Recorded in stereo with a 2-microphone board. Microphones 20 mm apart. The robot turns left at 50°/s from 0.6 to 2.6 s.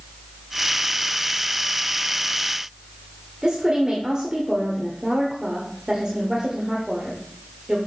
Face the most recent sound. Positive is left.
turn(degrees=-40)  # may be behind; listen again after turning